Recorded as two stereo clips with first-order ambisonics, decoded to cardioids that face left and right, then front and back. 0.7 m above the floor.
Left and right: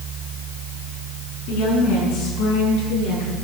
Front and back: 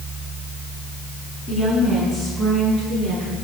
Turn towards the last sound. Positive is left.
turn(degrees=115)